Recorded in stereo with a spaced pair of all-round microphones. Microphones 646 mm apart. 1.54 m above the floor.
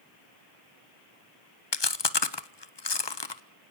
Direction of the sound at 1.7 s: 40° left (ahead or behind).